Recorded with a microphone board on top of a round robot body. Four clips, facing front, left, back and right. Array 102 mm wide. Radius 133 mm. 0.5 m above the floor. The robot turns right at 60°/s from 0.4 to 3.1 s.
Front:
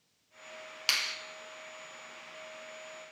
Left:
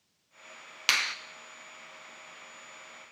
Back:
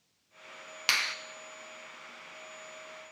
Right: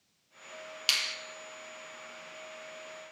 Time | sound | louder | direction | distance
0.9 | a finger snap | left 7 dB, back 4 dB | 115° left | 0.6 m